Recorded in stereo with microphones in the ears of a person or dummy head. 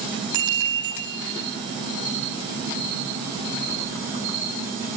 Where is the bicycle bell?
20° right (ahead or behind), 4.5 m.